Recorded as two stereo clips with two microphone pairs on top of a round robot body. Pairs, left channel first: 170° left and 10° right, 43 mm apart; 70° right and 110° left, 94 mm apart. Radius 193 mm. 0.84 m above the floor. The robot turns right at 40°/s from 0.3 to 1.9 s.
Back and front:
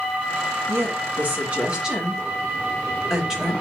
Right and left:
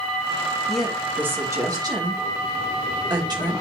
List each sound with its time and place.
0.7 s a woman speaking: 15° left, 2.0 m; by 3.5 s 65° left, 2.0 m